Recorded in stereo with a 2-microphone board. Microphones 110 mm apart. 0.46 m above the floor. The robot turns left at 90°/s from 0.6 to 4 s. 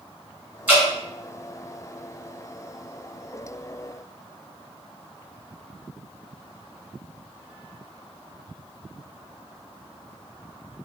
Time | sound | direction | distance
0.7 | dripping | 15° right (ahead or behind) | 1.2 m